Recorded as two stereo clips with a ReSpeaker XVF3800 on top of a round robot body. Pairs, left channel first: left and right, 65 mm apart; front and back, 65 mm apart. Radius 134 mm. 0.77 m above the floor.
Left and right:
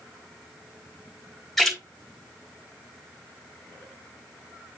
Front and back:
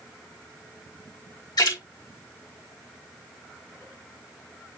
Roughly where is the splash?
Ahead.